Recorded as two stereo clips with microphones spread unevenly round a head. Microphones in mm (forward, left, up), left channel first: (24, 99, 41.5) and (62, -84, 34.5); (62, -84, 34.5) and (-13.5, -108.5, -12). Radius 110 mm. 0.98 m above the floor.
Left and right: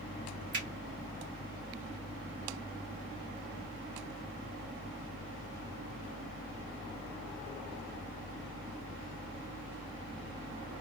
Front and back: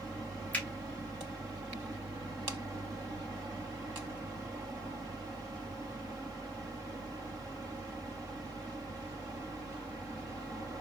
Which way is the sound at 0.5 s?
55° right.